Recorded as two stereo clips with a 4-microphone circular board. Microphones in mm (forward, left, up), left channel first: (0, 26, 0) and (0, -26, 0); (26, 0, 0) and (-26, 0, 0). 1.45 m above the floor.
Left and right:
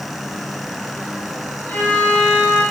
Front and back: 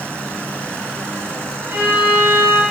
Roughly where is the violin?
Behind left.